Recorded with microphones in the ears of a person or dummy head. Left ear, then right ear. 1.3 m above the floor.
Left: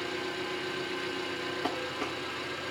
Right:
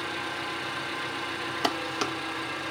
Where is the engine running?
20° right (ahead or behind), 3 m.